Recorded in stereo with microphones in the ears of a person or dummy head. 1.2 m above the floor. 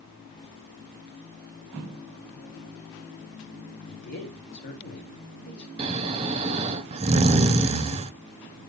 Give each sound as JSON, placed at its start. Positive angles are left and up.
{"t": 3.9, "sound": "a man speaking", "side_deg": 55, "distance_m": 2.0}
{"t": 5.8, "sound": "snoring", "side_deg": -30, "distance_m": 0.6}